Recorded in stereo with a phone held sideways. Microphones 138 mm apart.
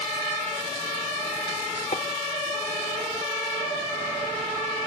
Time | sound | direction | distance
1.9 | tapping | 55° left (ahead or behind) | 0.9 m